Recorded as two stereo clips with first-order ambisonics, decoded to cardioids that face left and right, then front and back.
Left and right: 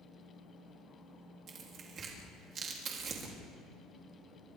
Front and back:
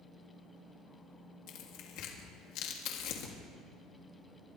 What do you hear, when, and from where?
1.5 s tearing paper: 30° right, 3 m